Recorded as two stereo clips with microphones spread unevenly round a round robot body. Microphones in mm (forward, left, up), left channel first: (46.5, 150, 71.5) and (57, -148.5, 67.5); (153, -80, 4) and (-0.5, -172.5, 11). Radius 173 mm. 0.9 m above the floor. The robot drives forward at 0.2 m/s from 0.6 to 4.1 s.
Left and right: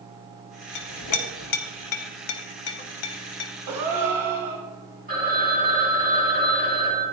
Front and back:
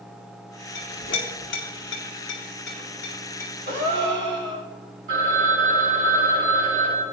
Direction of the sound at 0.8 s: 60° left.